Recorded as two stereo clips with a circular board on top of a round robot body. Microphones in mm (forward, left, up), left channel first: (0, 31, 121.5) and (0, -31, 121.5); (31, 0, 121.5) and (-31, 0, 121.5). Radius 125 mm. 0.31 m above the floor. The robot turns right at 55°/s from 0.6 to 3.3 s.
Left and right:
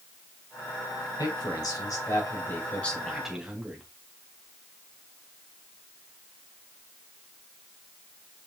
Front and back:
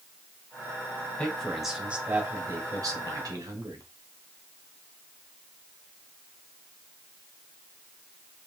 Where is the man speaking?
70° left, 3 m; by 3.8 s 175° right, 3 m.